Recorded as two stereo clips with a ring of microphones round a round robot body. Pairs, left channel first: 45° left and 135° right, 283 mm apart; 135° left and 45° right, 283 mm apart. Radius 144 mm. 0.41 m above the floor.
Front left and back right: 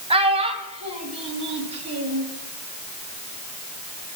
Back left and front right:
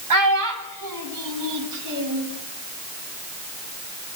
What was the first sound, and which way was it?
A child speaking, 65° right.